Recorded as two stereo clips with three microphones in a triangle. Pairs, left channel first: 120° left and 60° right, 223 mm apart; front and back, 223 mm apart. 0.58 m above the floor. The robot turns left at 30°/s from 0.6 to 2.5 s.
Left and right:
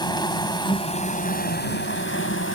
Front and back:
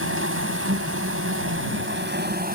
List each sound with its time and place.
0.0 s an insect: 170° right; by 2.6 s 135° left